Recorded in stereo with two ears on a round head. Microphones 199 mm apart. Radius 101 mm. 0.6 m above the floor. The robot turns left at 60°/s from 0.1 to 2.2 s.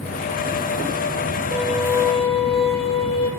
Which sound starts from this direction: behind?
A violin, at 1.5 s.